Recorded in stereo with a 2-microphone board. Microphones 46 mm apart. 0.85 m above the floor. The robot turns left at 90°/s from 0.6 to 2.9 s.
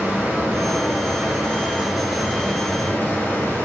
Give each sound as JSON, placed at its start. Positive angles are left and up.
{"t": 0.0, "sound": "running water", "azimuth_deg": -45, "distance_m": 1.2}